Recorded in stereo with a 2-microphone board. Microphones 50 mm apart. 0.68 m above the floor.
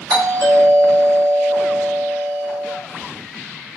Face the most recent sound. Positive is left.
turn(degrees=-40)  # may be behind; listen again after turning